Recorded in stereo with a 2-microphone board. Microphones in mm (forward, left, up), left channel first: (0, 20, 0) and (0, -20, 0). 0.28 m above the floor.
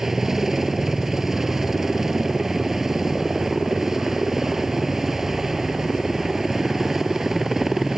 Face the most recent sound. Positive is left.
turn(degrees=-5)  # may be behind; listen again after turning